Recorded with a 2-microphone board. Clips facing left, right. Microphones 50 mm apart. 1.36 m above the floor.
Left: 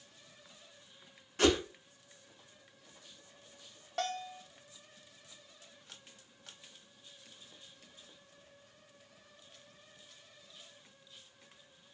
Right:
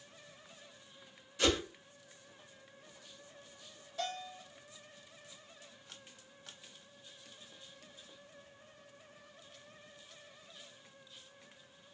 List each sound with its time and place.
1.4 s a whoosh: 45° left (ahead or behind), 1.2 m
4.0 s a bell: 60° left (ahead or behind), 0.6 m